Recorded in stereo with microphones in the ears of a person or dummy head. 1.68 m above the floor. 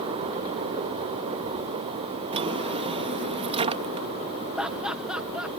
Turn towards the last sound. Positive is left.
turn(degrees=-5)  # may be behind; listen again after turning